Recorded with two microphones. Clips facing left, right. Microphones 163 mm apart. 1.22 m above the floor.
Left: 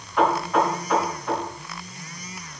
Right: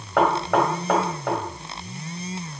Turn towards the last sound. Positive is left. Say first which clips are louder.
# right 1 dB
turn(degrees=-80)